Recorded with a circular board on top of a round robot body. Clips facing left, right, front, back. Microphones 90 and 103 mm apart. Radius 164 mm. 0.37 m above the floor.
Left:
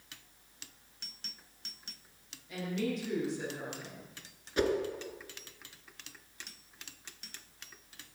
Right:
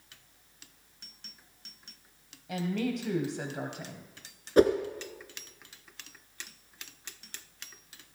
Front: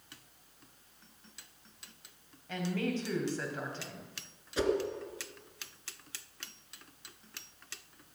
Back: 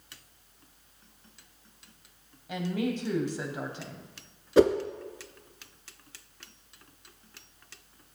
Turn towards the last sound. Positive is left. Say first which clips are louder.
# right 9 dB, back 10 dB
turn(degrees=-140)